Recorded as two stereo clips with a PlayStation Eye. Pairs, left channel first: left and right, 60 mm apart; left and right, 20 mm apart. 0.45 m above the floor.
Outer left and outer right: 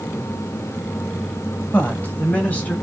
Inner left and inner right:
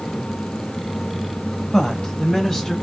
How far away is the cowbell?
I don't hear a cowbell.